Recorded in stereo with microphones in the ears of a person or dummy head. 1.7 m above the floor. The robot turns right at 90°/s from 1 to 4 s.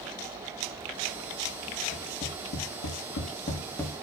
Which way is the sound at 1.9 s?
5° left (ahead or behind).